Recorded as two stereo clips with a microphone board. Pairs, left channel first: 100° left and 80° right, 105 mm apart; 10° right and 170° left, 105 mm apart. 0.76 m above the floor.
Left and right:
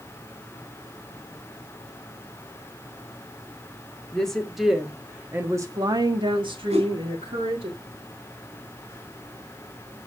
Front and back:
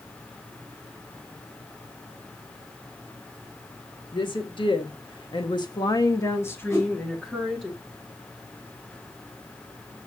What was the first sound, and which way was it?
A woman speaking, 20° left.